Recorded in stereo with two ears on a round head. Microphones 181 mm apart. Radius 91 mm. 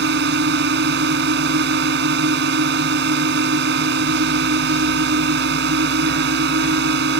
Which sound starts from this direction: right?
A drone, at 0.0 s.